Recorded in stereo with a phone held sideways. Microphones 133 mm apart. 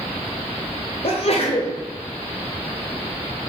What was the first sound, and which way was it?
A sneeze, 50° left (ahead or behind).